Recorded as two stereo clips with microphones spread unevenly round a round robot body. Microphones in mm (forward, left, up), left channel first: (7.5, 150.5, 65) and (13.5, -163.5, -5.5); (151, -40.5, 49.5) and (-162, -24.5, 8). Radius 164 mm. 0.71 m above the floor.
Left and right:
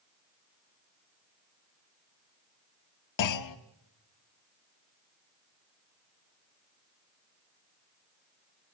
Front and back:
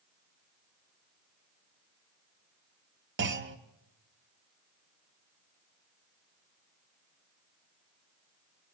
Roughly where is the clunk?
Behind left.